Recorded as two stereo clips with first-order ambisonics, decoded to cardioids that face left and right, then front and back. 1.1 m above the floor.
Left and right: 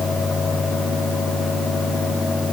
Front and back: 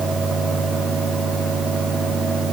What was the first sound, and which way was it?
Only background noise.